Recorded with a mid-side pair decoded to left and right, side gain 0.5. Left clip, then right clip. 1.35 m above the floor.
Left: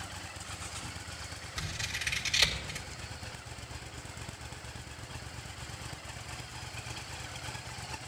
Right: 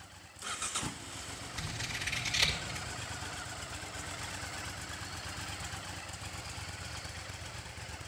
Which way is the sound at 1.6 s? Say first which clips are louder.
Left 3 dB; 40° left.